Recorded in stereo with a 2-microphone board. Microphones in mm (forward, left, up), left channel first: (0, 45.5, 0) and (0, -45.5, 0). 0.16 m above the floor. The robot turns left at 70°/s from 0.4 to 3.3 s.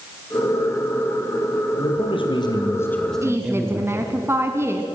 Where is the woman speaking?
30° right (ahead or behind), 1.4 m; by 4.8 s 25° right (ahead or behind), 1.4 m.